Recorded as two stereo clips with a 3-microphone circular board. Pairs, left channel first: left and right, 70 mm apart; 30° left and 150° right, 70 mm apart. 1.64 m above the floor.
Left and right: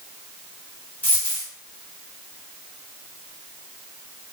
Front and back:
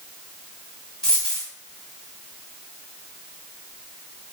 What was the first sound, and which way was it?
A dropped coin, 100° left.